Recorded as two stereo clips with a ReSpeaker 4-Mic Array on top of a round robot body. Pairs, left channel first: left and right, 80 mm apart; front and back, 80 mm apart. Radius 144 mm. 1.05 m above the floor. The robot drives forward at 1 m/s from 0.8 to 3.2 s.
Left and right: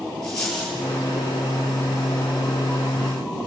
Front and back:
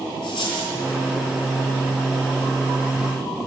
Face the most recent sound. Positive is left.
turn(degrees=15)